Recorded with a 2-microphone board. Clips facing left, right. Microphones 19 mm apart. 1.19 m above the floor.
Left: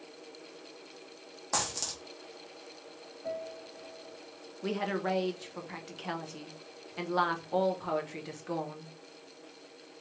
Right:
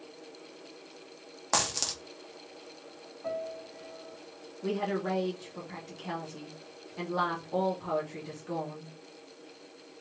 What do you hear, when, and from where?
1.5 s a dropped coin: 30° right (ahead or behind), 0.7 m
3.2 s a piano: 55° right (ahead or behind), 1.7 m
4.6 s a woman speaking: 30° left (ahead or behind), 0.7 m